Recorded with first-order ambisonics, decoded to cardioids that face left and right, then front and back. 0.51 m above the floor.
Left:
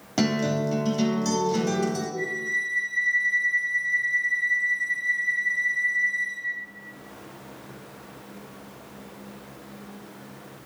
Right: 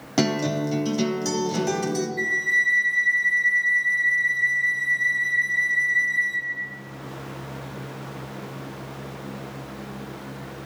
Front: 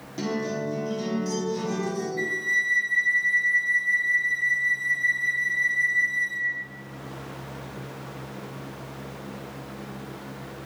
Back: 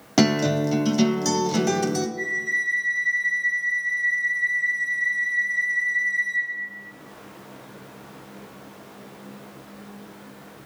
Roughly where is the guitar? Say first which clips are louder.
Right 2 dB, back 8 dB; behind.